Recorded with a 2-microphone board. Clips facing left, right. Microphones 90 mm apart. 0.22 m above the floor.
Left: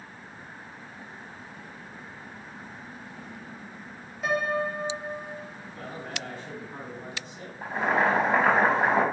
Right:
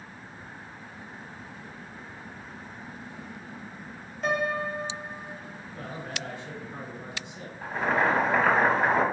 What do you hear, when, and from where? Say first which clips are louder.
4.2 s a piano: left 1 dB; 5° left (ahead or behind), 1.0 m
5.7 s a man speaking: even; 40° left (ahead or behind), 1.8 m
7.6 s boiling: left 1 dB; 25° left (ahead or behind), 0.9 m